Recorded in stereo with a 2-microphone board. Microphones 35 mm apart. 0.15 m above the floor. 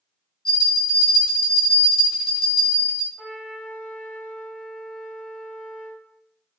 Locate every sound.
0.5 s a bell: 20° left (ahead or behind), 1.1 m
3.2 s a trumpet: 30° left (ahead or behind), 1.4 m